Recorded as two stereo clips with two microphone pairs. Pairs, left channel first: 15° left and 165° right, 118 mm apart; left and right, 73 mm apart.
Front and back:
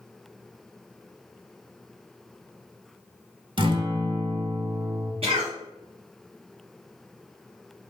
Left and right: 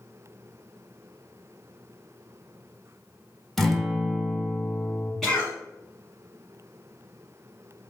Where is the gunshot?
No gunshot in this recording.